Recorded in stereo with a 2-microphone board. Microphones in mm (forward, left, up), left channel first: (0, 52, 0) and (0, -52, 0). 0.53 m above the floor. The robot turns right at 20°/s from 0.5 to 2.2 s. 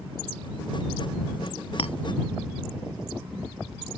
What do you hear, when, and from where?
1.8 s a clink: 75° left (ahead or behind); by 1.9 s 70° left (ahead or behind)